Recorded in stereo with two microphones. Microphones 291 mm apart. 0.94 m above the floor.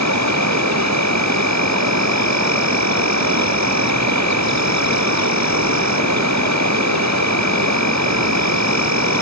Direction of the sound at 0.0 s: 70° right (ahead or behind).